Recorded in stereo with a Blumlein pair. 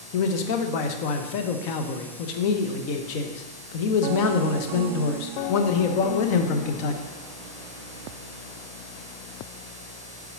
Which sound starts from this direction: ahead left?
A man speaking, at 0.1 s.